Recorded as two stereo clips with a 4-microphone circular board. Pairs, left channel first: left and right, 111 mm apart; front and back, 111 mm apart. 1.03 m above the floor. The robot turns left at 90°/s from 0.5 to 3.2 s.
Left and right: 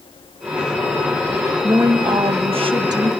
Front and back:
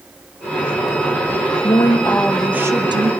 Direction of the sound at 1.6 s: 25° right.